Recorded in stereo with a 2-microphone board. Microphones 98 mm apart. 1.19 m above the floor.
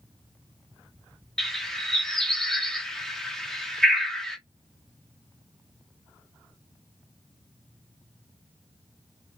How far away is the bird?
About 0.7 m.